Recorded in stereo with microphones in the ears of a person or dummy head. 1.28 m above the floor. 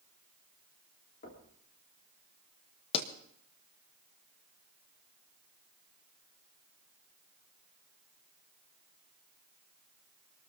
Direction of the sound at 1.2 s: 45° left (ahead or behind).